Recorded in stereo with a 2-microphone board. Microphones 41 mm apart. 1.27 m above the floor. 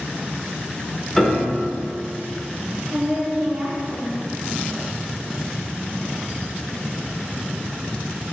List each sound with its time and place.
1.2 s a piano: centre (ahead or behind), 1.1 m
2.9 s a woman speaking: 40° right (ahead or behind), 1.0 m